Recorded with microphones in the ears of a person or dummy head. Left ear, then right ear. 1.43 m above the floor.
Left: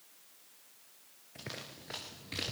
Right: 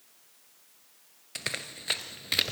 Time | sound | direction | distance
1.4 | running footsteps | 40° right (ahead or behind) | 1.8 m